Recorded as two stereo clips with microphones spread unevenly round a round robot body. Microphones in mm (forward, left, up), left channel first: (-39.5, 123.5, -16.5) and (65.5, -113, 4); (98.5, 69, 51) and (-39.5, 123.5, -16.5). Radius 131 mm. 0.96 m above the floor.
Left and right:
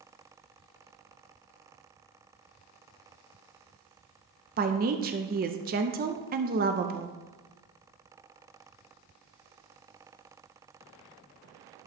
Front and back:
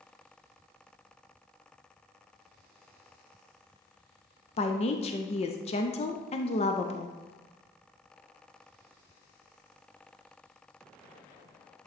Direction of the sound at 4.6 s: 85° right.